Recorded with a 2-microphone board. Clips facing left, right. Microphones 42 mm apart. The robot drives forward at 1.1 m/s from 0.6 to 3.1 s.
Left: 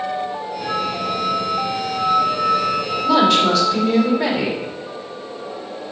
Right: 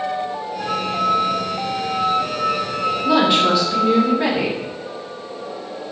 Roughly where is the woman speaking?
Centre.